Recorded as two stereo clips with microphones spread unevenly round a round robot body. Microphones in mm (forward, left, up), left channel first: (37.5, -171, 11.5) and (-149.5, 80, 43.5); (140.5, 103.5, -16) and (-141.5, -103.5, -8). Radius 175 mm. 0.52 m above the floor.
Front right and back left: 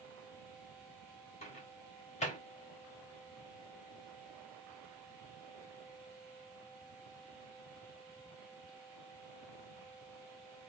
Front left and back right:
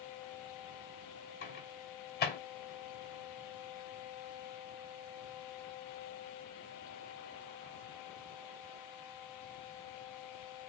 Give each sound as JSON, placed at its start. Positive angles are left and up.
{"t": 1.4, "sound": "a microwave", "azimuth_deg": -5, "distance_m": 1.0}